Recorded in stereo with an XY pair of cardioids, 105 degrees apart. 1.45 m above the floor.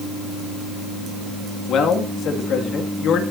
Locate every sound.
1.7 s a man speaking: 70° left, 2.5 m